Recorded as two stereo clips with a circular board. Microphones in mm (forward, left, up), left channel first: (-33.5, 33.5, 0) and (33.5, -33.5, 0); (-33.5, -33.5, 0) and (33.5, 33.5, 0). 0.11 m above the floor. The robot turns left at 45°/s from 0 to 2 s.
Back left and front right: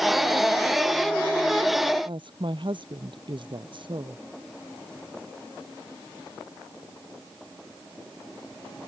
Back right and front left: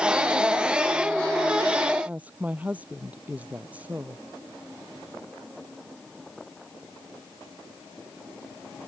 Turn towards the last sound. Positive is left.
turn(degrees=-25)